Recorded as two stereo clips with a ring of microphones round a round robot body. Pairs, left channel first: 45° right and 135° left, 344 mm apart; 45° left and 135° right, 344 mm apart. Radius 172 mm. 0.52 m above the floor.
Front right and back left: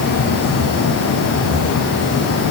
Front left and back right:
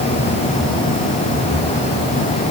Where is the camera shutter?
No camera shutter in this recording.